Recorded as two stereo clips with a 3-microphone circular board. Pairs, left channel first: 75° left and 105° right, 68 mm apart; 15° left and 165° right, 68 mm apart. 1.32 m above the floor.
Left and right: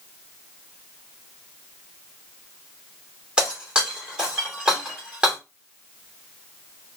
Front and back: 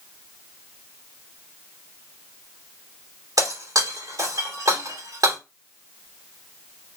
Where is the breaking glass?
Straight behind, 2.5 m.